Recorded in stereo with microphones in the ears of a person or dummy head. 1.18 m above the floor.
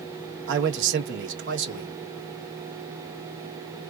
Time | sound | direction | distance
0.5 | a man speaking | 60° right (ahead or behind) | 1.2 m